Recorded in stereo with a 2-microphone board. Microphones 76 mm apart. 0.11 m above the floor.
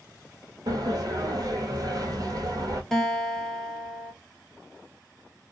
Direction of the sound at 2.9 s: Centre (ahead or behind).